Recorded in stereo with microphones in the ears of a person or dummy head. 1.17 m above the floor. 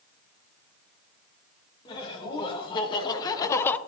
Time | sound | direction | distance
1.9 | laughter | 30° left (ahead or behind) | 2.5 m